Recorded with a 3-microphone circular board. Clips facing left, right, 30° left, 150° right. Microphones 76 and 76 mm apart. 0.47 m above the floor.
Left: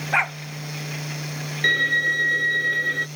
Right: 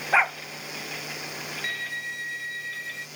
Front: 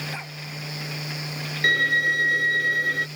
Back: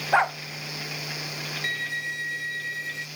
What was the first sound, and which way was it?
A dog barking, 175° right.